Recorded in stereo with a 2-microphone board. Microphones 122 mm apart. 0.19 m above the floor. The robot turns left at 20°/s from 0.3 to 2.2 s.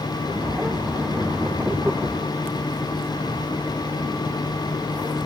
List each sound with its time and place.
Only background noise.